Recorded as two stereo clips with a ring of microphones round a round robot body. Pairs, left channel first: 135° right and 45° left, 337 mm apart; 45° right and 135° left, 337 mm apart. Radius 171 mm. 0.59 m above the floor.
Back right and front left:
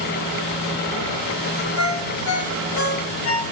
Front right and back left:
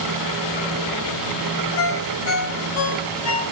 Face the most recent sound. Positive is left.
turn(degrees=-90)